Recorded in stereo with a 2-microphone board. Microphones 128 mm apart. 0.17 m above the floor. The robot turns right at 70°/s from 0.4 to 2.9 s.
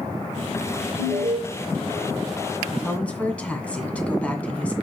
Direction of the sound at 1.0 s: 60° right (ahead or behind).